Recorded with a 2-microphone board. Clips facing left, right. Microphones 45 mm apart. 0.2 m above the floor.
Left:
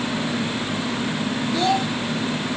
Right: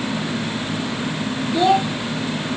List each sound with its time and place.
1.5 s a child speaking: 20° right (ahead or behind), 0.9 m